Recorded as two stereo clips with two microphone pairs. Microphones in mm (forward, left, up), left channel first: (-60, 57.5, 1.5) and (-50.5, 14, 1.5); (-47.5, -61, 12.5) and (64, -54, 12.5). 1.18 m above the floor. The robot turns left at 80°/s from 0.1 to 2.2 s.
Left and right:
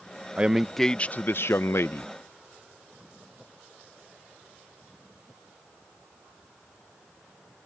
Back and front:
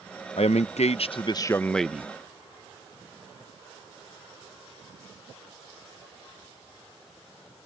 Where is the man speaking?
145° right; by 2.1 s 75° left.